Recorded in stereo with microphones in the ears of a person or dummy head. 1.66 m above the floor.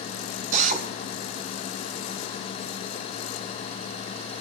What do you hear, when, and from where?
0.5 s a drill: 40° right (ahead or behind), 1.8 m